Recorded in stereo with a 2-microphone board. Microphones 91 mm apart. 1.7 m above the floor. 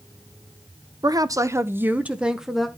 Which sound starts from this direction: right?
A woman speaking, at 1.0 s.